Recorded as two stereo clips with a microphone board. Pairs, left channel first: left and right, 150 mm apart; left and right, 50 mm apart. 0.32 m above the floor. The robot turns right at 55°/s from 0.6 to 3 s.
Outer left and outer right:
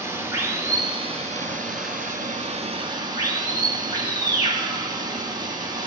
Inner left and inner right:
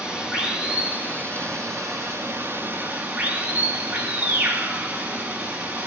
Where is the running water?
160° right, 3 m; by 5.9 s 30° right, 3 m.